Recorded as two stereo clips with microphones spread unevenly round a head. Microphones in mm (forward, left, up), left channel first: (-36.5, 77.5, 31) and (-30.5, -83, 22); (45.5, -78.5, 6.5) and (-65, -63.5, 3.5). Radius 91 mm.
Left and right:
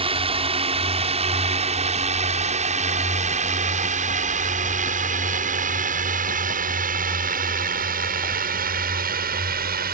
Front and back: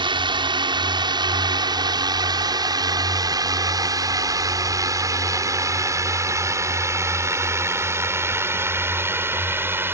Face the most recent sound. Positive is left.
turn(degrees=-115)